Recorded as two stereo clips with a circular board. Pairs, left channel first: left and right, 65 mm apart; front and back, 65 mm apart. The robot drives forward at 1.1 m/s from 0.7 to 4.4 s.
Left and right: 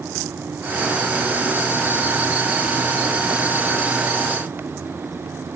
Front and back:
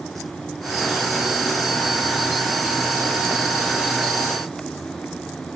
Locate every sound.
Only background noise.